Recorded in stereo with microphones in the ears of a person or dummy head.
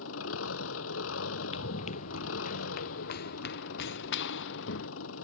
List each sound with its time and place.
0.0 s an engine running: 90° left
1.5 s running footsteps: 40° left (ahead or behind); by 4.9 s 75° left (ahead or behind)